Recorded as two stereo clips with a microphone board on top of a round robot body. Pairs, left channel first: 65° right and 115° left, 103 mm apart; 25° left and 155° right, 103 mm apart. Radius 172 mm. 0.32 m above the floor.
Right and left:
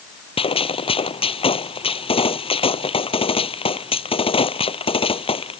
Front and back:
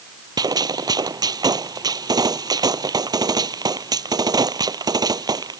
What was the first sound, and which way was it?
A gunshot, 105° right.